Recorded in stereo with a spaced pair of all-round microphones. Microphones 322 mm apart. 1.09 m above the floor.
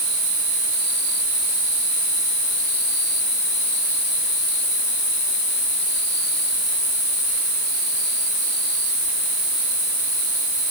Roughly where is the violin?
I don't hear a violin.